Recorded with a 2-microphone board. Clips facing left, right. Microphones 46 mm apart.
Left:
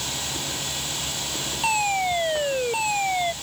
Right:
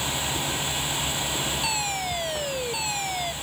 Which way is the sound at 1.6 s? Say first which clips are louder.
Left 6 dB; 30° left (ahead or behind).